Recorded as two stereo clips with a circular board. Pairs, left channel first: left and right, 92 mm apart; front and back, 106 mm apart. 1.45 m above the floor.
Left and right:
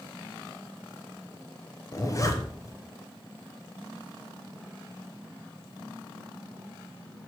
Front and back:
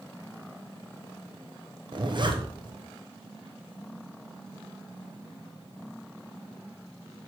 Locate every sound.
1.9 s a zipper: 140° left, 0.8 m